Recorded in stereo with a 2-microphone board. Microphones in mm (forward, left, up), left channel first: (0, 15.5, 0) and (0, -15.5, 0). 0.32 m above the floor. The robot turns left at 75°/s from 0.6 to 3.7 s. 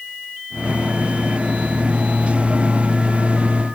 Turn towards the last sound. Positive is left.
No sound to turn to.